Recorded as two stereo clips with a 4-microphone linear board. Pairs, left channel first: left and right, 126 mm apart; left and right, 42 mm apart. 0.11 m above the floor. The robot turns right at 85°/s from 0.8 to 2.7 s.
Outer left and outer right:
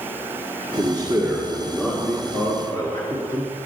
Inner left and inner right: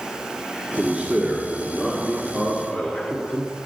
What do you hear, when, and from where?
0.8 s a man speaking: 85° right, 1.7 m; by 3.5 s 80° left, 1.7 m